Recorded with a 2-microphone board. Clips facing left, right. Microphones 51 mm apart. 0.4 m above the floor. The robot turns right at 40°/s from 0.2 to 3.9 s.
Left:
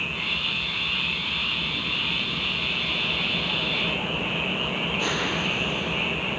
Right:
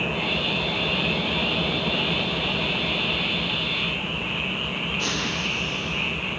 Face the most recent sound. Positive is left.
turn(degrees=15)